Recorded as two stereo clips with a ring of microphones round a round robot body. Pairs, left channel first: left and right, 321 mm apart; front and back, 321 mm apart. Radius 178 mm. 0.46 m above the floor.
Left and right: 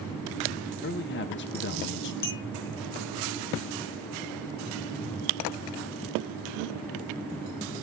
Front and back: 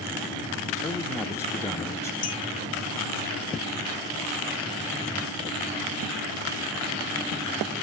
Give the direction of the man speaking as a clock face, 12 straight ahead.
9 o'clock.